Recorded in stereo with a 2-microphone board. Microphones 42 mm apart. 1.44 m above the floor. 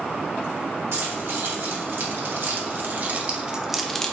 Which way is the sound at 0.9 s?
70° right (ahead or behind).